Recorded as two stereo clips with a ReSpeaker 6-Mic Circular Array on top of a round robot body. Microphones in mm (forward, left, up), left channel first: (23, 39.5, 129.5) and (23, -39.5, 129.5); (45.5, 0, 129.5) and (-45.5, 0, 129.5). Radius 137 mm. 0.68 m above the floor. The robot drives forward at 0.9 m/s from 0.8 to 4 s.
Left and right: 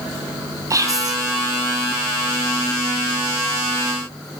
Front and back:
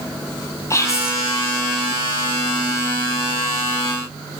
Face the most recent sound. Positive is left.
turn(degrees=-145)